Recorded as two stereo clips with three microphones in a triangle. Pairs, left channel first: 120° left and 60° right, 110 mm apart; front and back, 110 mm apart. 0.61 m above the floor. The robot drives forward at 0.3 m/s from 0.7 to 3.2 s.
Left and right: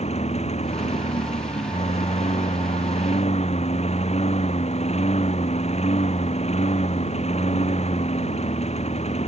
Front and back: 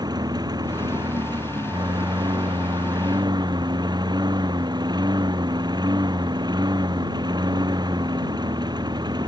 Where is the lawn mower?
125° left; by 9.3 s 130° left.